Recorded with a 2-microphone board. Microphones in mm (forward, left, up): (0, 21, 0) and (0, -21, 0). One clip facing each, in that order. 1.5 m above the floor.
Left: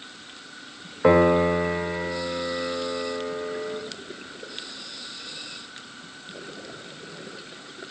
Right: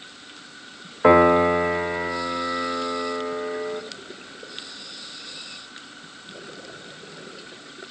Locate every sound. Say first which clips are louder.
1.0 s a piano: right 3 dB; 15° right (ahead or behind), 1.6 m